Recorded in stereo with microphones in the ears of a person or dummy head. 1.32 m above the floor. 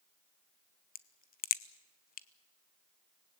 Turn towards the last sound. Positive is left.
turn(degrees=45)  # may be behind; listen again after turning